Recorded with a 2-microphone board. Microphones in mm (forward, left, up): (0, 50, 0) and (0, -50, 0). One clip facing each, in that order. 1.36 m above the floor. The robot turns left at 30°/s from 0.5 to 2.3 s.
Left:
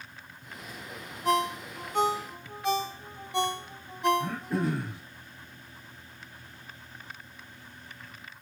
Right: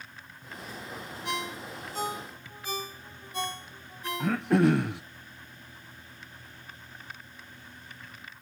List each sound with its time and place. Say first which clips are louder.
1.2 s a ringtone: left 9 dB; 45° left (ahead or behind), 1.5 m; by 4.7 s 70° left (ahead or behind), 1.5 m
4.2 s throat clearing: right 7 dB; 75° right (ahead or behind), 0.7 m